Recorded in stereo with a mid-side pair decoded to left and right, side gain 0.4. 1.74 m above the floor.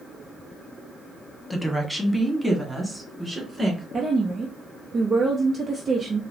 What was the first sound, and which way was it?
A woman speaking, 10° left.